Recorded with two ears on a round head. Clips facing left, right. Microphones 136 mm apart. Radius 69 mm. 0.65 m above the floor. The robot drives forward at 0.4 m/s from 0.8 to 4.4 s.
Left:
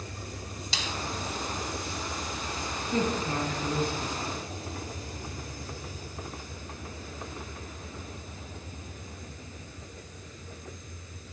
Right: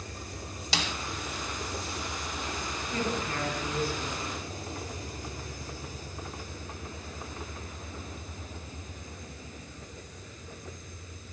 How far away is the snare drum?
About 0.8 m.